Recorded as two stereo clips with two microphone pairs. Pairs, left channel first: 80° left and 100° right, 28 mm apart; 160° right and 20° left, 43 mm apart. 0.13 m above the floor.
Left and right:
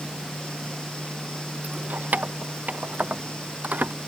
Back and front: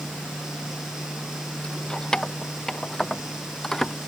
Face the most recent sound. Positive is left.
turn(degrees=-85)